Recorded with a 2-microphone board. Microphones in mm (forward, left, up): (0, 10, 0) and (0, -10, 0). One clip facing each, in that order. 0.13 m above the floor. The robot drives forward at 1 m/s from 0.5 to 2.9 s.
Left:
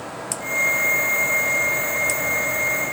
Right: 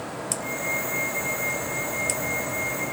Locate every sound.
Only background noise.